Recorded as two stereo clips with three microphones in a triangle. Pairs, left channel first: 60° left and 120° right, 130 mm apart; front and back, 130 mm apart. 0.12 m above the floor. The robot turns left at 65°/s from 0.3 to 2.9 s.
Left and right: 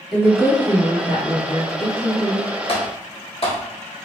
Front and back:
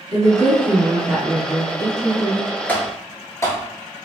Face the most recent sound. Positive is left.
turn(degrees=60)